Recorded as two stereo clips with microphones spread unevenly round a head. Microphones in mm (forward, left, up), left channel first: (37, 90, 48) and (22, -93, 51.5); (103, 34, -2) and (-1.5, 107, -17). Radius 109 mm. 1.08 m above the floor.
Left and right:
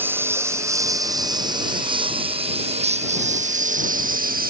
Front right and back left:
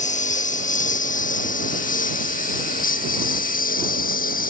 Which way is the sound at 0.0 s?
15° right.